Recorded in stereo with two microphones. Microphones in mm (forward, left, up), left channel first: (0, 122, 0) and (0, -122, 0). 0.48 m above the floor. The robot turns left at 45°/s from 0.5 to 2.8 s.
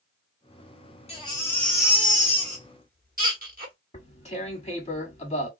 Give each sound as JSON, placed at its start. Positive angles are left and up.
{"t": 1.1, "sound": "a baby crying", "azimuth_deg": 30, "distance_m": 1.5}
{"t": 3.9, "sound": "tearing paper", "side_deg": 25, "distance_m": 1.4}